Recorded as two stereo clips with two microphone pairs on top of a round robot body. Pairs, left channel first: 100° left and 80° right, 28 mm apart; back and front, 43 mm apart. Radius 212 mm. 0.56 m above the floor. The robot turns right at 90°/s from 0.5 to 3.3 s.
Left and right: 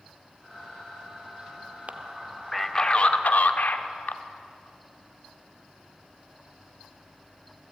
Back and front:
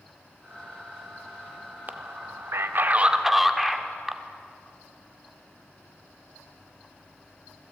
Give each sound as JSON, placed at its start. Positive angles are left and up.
{"t": 1.9, "sound": "a man speaking", "azimuth_deg": -45, "distance_m": 2.0}